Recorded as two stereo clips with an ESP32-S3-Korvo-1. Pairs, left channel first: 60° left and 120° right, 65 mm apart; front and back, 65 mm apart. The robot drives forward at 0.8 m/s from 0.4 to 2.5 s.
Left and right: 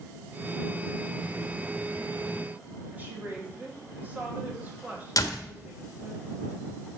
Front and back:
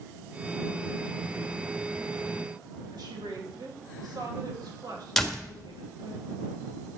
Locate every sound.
2.9 s a woman speaking: 175° left, 2.5 m
5.2 s a door slam: 85° left, 1.5 m